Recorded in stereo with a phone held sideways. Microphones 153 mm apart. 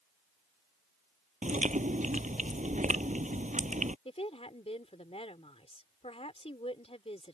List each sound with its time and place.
1.4 s chewing: 55° right (ahead or behind)
4.0 s a woman speaking: 40° left (ahead or behind)